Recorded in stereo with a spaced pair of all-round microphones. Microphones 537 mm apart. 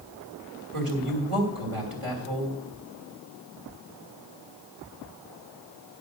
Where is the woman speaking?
85° right, 3 m.